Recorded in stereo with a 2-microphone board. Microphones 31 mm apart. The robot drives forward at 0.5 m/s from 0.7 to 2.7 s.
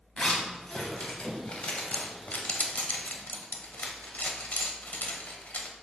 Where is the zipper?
35° left (ahead or behind), 1.4 m; by 5.7 s 60° left (ahead or behind), 0.9 m.